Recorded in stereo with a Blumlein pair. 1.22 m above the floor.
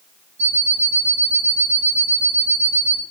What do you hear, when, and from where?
0.4 s an alarm clock: 65° right, 1.2 m